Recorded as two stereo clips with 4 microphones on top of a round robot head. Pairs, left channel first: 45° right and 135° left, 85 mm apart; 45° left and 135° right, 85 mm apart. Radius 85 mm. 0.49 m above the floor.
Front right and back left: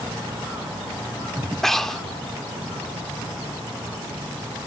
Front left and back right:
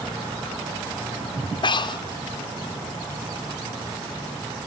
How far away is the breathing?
About 1.5 m.